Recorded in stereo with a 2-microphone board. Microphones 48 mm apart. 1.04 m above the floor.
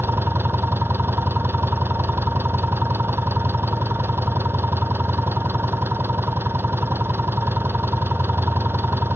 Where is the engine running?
55° right (ahead or behind).